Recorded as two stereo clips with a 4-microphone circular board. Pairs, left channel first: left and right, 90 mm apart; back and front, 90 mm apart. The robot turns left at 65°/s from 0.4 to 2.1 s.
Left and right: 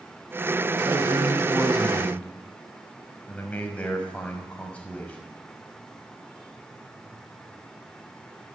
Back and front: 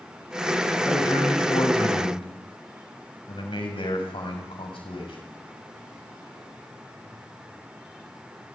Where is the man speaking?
110° right, 6 m; by 5.2 s 165° left, 6 m.